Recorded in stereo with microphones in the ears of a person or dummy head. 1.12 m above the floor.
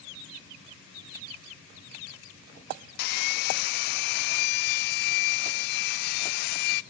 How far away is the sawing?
About 0.8 m.